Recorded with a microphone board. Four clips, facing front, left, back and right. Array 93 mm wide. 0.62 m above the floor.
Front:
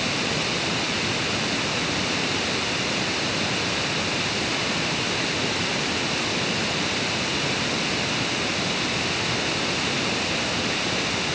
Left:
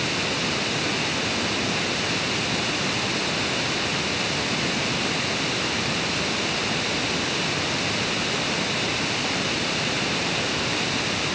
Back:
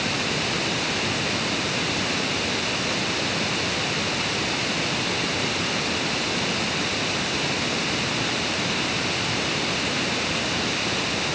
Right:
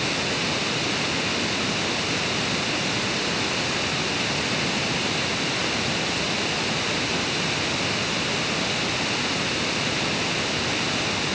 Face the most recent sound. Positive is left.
No sound to turn to.